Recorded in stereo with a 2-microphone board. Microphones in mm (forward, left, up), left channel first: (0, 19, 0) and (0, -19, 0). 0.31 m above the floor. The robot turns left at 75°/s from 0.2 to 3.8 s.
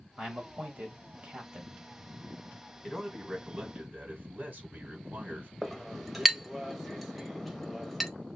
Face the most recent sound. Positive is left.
turn(degrees=-5)  # may be behind; listen again after turning